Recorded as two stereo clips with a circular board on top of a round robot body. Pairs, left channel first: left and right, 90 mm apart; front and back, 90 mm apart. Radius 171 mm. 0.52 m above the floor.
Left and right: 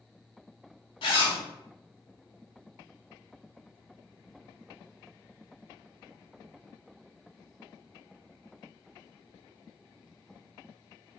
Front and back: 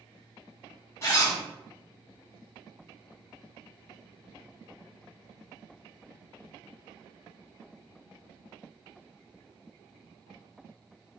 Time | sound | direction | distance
1.0 | a zipper | 60° left | 0.9 m